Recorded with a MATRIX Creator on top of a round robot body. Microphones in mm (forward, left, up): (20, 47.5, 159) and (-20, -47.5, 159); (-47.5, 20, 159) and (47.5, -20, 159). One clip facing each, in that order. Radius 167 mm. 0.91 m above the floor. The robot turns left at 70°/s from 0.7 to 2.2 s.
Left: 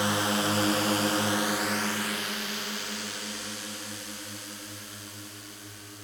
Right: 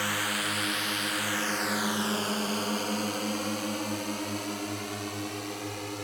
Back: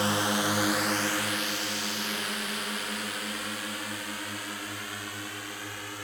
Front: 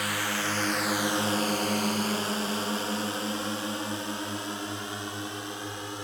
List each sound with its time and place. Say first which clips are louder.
0.0 s a drone: left 5 dB, back 4 dB; 120° left; by 6.0 s 90° right